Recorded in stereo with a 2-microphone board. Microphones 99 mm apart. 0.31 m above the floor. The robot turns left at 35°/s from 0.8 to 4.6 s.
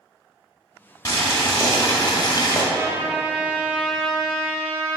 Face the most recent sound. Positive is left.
turn(degrees=160)